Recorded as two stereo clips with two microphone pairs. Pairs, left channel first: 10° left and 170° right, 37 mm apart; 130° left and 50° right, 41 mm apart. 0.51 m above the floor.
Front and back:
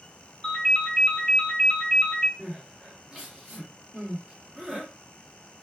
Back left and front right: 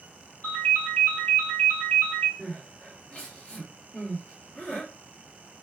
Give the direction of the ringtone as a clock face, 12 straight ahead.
9 o'clock.